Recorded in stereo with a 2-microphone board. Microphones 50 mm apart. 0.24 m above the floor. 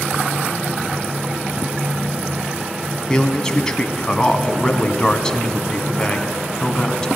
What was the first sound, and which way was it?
A man speaking, 15° left (ahead or behind).